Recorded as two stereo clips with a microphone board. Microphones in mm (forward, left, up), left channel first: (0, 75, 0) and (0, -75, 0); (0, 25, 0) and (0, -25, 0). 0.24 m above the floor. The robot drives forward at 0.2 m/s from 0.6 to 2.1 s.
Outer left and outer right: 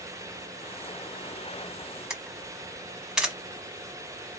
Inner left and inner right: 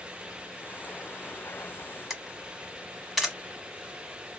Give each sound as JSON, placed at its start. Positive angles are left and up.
{"t": 2.1, "sound": "a camera shutter", "side_deg": -5, "distance_m": 1.1}